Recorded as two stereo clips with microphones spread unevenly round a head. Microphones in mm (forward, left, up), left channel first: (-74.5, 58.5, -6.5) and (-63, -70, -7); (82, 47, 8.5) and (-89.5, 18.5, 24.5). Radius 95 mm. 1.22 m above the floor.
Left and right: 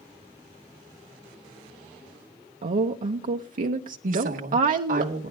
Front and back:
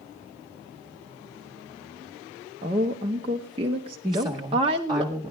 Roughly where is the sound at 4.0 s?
Right.